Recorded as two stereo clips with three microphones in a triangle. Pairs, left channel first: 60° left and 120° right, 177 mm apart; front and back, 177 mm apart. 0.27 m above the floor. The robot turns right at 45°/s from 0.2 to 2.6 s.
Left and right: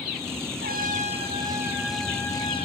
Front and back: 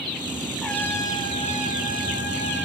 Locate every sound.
0.6 s a trumpet: 90° right, 2 m; by 2.7 s straight ahead, 2 m